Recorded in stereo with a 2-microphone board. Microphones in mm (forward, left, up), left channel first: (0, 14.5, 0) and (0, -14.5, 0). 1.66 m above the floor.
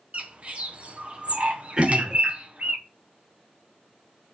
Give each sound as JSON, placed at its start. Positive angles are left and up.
{"t": 0.1, "sound": "a bird", "side_deg": -50, "distance_m": 1.1}
{"t": 1.8, "sound": "throat clearing", "side_deg": -30, "distance_m": 2.0}